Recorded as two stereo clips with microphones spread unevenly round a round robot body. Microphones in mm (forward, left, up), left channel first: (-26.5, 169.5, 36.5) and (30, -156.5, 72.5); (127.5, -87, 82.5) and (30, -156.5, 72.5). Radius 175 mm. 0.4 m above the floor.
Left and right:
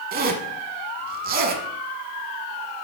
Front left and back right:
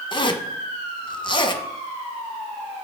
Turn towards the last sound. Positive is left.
turn(degrees=-15)